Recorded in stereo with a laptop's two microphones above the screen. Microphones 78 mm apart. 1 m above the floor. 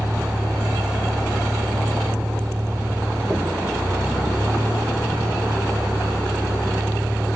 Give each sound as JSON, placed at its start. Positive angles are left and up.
{"t": 0.0, "sound": "a vehicle", "side_deg": -25}